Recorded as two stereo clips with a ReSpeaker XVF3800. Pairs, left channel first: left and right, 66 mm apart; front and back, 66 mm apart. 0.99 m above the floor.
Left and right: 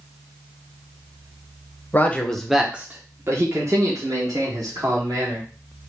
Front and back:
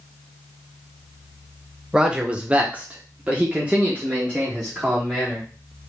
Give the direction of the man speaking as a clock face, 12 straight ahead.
8 o'clock.